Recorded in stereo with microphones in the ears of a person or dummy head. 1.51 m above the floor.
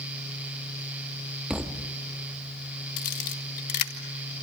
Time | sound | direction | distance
1.5 | a thud | 5° right (ahead or behind) | 1.3 m
3.0 | a camera shutter | 50° left (ahead or behind) | 2 m